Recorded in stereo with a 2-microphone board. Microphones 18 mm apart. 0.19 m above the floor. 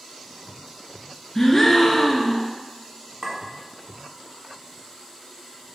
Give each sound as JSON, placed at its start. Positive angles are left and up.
{"t": 1.4, "sound": "a gasp", "side_deg": 10, "distance_m": 0.6}
{"t": 3.2, "sound": "a clink", "side_deg": -30, "distance_m": 1.2}